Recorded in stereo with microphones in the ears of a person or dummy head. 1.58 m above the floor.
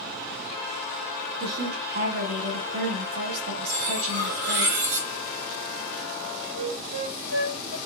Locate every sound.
1.4 s a woman speaking: 85° right, 3 m
3.7 s cutlery clinking: 50° right (ahead or behind), 1.1 m
6.5 s a flute: 55° right (ahead or behind), 2.5 m